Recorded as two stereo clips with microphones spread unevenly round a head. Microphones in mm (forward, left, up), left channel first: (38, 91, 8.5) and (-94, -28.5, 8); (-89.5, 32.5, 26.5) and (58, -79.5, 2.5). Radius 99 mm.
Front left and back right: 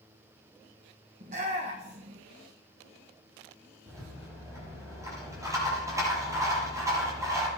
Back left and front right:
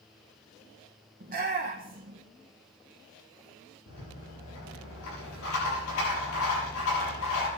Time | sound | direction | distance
1.2 | a shout | 80° right | 1.3 m
3.9 | a rattle | 150° left | 7 m